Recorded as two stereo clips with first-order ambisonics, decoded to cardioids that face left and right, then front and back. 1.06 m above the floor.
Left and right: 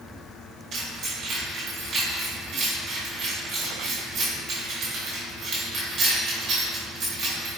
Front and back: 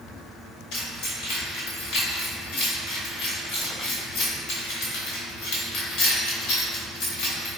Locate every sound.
0.7 s keys jangling: 35° right, 1.2 m